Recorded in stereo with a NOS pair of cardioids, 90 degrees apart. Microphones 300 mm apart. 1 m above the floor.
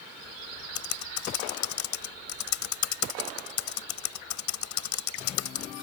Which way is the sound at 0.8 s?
65° left.